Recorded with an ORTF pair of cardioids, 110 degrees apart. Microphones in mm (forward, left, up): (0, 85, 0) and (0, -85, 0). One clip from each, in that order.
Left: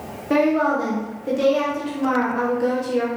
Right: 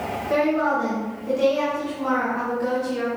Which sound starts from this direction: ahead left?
A woman speaking, at 0.3 s.